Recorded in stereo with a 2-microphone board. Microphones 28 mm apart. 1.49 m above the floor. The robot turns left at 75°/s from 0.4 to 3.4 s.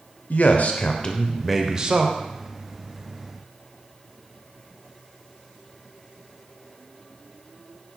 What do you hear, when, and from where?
0.3 s a man speaking: 80° left, 0.5 m; by 2.1 s 45° right, 0.5 m